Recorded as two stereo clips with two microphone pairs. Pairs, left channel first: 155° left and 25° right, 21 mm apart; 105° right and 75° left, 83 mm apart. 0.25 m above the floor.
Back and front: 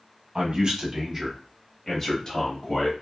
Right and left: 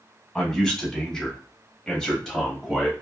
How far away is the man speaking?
About 1.3 m.